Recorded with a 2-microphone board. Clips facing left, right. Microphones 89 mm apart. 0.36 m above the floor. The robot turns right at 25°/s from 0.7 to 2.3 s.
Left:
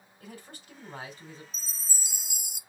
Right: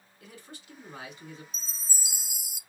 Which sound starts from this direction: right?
A chime, at 1.5 s.